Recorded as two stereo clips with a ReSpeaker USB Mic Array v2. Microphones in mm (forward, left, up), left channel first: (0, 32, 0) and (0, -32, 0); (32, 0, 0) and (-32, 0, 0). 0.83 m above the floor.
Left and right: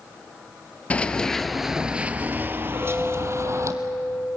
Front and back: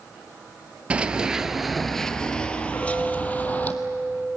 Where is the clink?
55° right, 9 m.